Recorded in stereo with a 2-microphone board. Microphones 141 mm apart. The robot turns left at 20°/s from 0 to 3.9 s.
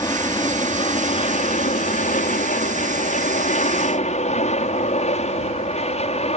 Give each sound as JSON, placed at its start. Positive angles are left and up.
{"t": 0.0, "sound": "an aircraft", "side_deg": 25}